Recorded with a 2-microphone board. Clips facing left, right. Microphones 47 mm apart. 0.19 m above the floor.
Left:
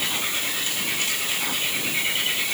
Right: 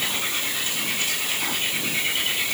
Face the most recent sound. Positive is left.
No sound to turn to.